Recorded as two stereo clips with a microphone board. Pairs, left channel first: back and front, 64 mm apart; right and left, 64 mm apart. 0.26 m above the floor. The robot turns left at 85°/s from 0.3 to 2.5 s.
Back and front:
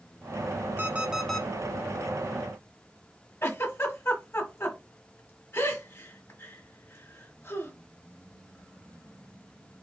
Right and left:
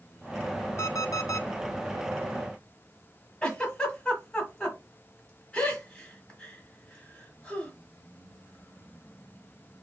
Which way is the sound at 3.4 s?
155° right.